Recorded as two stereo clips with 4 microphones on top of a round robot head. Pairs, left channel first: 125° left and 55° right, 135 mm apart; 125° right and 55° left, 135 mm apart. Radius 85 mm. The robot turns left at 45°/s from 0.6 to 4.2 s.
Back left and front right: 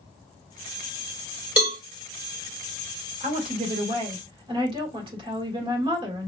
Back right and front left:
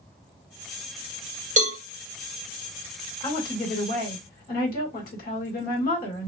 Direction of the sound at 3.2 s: 65° right.